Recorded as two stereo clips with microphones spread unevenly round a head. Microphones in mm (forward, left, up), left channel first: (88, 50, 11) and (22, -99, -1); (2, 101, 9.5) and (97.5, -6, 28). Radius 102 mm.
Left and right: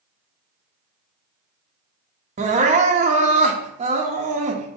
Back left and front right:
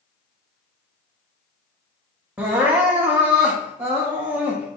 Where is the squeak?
I don't hear a squeak.